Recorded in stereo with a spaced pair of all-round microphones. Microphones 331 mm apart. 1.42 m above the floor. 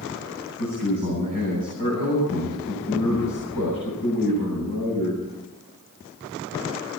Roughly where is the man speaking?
Left.